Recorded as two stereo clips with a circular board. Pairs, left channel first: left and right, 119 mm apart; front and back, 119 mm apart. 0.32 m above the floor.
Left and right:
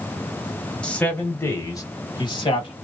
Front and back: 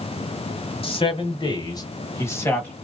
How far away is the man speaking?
About 1.4 m.